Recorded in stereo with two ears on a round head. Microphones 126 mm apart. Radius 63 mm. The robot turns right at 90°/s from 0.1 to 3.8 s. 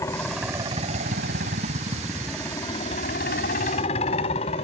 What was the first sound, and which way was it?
A helicopter, 160° left.